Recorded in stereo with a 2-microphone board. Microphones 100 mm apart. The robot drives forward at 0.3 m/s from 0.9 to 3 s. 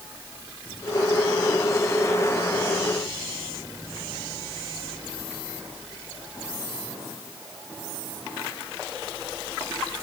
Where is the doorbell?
No doorbell in this recording.